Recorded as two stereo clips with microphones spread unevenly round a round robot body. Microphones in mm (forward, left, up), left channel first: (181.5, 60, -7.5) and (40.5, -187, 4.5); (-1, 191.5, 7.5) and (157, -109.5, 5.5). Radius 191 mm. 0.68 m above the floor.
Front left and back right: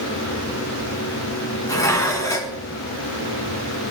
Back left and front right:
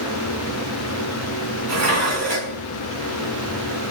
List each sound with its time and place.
1.7 s dishes clattering: 20° right, 4.5 m